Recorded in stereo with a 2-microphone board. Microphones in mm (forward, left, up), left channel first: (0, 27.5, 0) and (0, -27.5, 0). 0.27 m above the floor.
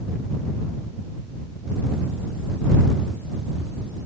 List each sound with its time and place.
Only background noise.